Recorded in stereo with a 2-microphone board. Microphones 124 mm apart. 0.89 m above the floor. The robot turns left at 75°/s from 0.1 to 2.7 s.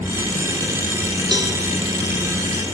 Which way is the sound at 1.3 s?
40° right (ahead or behind).